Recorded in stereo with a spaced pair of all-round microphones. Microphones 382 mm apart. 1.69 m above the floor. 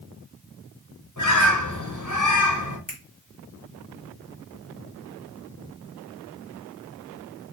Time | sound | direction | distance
1.2 | a bird | 50° left (ahead or behind) | 1.1 m
2.9 | a finger snap | 15° left (ahead or behind) | 1.6 m